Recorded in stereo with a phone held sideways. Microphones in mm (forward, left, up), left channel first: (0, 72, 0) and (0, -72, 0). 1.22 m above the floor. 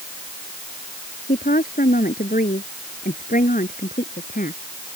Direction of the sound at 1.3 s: 80° left.